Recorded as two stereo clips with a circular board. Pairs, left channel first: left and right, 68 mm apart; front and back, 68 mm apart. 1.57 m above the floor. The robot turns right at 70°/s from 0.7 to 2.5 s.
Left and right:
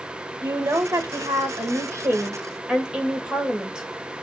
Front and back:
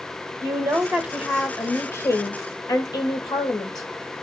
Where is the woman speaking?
135° right, 2 m; by 3.9 s 10° right, 2 m.